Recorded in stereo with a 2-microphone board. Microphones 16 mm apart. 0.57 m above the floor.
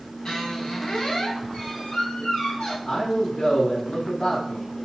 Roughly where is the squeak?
Left.